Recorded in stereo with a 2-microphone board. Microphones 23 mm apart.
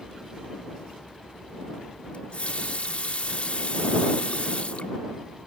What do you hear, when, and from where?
2.1 s a running tap: 55° left (ahead or behind)